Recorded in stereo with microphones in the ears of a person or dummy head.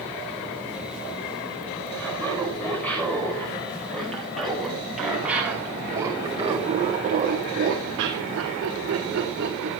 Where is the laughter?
10° left (ahead or behind), 5.5 m; by 9.7 s 65° right (ahead or behind), 2.5 m.